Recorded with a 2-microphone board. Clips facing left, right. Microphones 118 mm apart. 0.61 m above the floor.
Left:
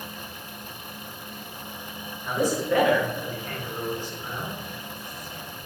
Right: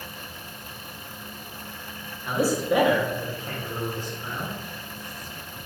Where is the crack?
No crack in this recording.